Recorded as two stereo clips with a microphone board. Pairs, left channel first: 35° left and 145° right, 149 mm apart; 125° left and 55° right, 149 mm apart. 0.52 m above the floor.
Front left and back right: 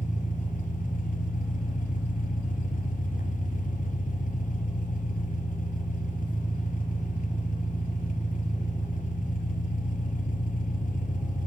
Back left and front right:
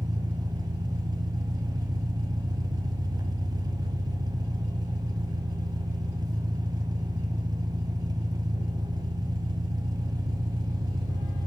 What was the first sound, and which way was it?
An engine running, 5° left.